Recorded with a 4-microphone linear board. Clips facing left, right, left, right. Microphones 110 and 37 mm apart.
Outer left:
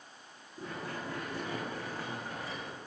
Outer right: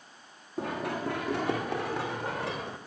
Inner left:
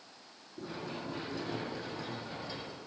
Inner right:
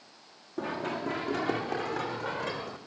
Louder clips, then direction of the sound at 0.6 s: Outer right 8 dB, inner right 8 dB; 75° right (ahead or behind).